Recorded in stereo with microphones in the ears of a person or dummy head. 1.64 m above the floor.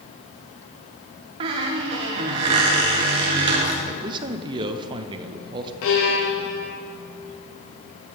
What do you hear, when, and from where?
1.4 s a squeak: 30° right (ahead or behind), 0.8 m
3.9 s a man speaking: 25° right (ahead or behind), 0.7 m
5.8 s a violin: 80° left, 1.7 m